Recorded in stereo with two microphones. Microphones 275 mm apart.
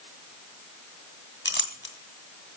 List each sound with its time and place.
1.4 s a clink: 45° left (ahead or behind), 2 m